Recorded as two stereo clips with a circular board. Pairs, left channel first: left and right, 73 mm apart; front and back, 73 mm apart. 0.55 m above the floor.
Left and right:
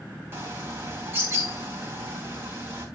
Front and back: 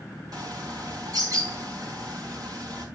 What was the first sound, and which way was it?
A bird, 150° right.